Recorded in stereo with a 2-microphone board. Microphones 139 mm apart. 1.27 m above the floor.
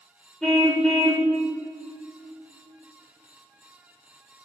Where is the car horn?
5° left (ahead or behind), 2.5 m.